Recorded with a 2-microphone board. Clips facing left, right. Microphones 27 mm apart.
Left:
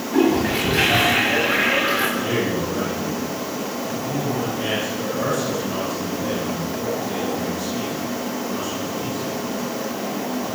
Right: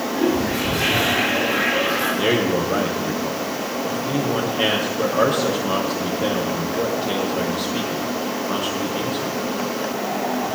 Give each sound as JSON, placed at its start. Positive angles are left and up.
{"t": 0.1, "sound": "a toilet flushing", "side_deg": 85, "distance_m": 9.0}
{"t": 2.2, "sound": "a man speaking", "side_deg": -70, "distance_m": 4.5}